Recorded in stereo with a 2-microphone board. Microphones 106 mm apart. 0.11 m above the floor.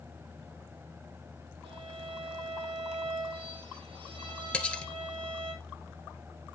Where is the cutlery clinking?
10° left (ahead or behind), 1.0 m.